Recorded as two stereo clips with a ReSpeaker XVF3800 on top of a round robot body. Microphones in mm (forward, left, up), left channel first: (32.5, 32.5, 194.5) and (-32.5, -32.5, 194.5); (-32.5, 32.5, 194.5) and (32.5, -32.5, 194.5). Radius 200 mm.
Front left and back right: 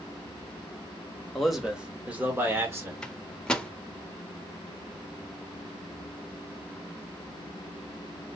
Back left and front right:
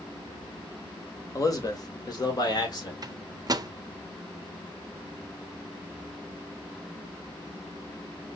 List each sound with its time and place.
1.4 s a man speaking: 130° left, 1.6 m; by 2.9 s 170° left, 2.5 m
3.0 s a microwave: 35° right, 0.8 m